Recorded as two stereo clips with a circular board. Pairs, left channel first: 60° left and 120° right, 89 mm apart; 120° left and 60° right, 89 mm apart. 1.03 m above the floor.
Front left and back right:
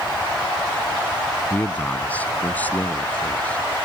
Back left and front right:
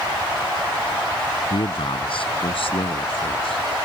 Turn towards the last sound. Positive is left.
turn(degrees=135)